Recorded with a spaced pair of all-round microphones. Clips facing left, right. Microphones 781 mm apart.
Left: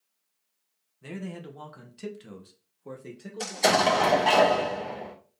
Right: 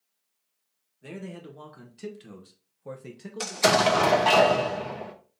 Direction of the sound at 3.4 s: 45° right (ahead or behind).